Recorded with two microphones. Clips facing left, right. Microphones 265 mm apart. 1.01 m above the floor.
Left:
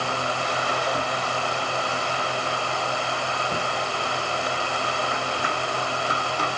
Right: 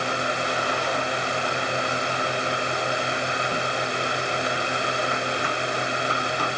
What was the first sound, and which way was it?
Only background noise.